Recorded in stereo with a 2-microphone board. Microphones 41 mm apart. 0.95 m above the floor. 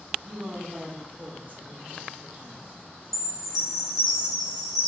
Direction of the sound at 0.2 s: 60° right (ahead or behind).